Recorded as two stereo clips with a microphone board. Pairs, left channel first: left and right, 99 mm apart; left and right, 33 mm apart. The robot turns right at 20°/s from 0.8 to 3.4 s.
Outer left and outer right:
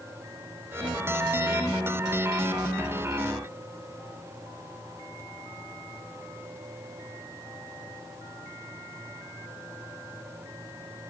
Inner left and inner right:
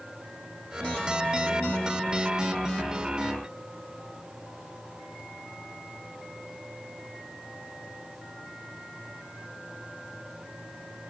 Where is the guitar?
No guitar in this recording.